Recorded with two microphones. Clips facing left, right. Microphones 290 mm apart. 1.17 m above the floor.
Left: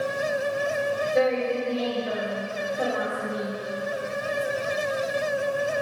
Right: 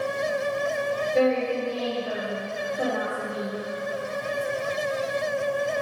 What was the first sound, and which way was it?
A woman speaking, centre (ahead or behind).